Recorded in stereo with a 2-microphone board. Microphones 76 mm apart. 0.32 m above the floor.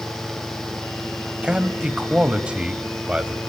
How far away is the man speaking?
About 1.5 m.